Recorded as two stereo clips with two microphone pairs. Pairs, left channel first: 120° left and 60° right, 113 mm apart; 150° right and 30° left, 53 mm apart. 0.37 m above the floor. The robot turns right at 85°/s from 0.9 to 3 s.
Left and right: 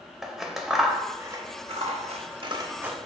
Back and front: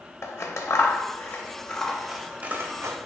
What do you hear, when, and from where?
0.2 s scissors: 150° right, 0.5 m; by 3.0 s 25° left, 0.5 m